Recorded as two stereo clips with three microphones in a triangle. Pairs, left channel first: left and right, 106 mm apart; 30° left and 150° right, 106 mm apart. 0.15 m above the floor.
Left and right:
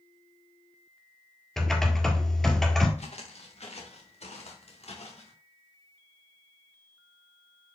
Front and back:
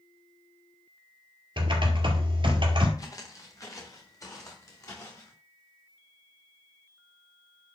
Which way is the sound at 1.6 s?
175° left.